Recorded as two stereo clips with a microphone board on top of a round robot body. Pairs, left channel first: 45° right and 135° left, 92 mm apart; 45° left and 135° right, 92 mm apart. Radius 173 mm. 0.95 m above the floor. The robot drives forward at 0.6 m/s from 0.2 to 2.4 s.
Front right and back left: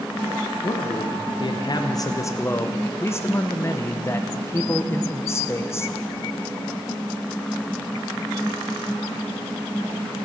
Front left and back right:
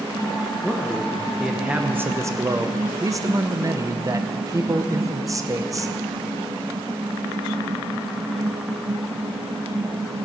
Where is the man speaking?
35° right, 1.4 m; by 6.0 s 95° right, 1.0 m.